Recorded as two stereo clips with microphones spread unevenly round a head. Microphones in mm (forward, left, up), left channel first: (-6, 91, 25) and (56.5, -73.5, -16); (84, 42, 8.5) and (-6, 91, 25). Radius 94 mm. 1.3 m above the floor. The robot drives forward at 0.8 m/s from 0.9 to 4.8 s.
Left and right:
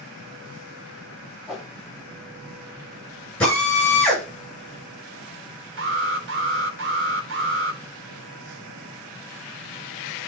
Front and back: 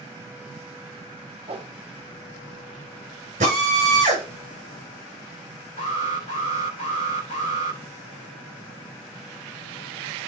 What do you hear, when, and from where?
1.5 s a whoosh: 160° right, 1.6 m; by 1.7 s 165° right, 1.8 m
3.4 s a drill: 165° right, 8.5 m
5.8 s an alarm: 95° right, 3 m